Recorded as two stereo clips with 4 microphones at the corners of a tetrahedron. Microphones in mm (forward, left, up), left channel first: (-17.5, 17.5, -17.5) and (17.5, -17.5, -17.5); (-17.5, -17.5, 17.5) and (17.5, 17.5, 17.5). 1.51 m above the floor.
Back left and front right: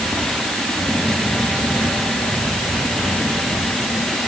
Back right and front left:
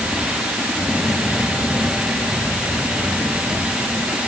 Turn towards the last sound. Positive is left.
No sound to turn to.